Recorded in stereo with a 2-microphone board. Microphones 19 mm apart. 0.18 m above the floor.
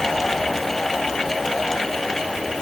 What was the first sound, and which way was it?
Only background noise.